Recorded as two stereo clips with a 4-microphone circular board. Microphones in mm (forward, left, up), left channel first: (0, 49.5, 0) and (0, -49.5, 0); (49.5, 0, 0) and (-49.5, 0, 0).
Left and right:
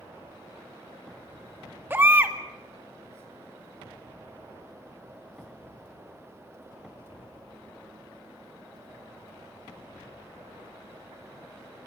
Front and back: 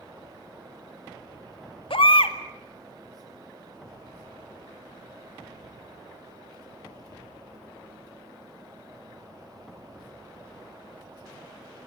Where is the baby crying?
25° right, 1.9 m.